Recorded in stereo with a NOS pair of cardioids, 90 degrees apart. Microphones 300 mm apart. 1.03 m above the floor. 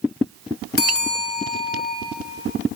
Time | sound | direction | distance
0.8 | a bell | 50° left | 2 m